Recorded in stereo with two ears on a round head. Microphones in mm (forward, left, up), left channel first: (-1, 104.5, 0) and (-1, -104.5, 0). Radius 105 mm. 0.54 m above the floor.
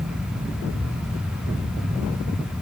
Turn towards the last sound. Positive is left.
No sound to turn to.